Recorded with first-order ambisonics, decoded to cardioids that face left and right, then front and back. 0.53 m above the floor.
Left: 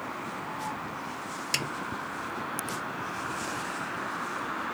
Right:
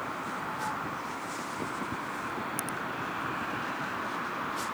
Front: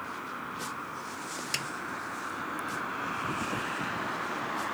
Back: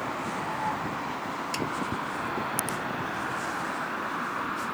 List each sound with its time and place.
1.5 s a snare drum: 75° left